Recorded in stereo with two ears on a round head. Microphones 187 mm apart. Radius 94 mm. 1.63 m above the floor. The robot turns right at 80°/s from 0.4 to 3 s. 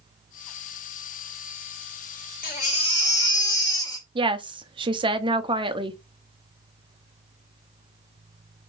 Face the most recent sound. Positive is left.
turn(degrees=-25)  # may be behind; listen again after turning